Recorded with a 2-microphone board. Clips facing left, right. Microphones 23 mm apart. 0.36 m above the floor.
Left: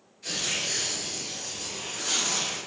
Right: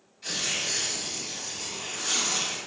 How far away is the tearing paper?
About 1.6 m.